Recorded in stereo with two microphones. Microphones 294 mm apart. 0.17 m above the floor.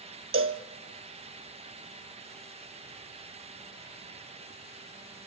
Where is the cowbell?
45° right (ahead or behind), 1.1 m.